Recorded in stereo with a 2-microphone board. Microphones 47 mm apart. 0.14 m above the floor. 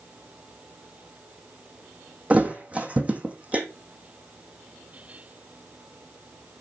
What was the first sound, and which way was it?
A thud, 30° right (ahead or behind).